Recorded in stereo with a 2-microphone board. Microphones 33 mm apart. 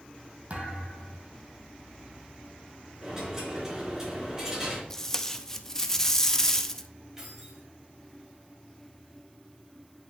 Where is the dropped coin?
20° right (ahead or behind), 3.5 m.